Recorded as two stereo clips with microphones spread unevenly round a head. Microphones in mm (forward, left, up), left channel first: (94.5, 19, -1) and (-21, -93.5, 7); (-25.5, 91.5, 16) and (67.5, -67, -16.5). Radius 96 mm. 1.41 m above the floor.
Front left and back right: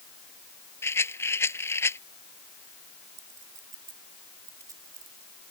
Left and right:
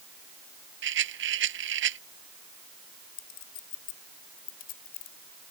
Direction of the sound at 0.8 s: 30° right.